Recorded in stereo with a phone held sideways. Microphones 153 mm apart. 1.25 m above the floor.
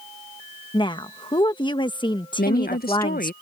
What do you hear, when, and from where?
0.7 s a woman speaking: 30° left (ahead or behind)
2.4 s a woman speaking: 80° left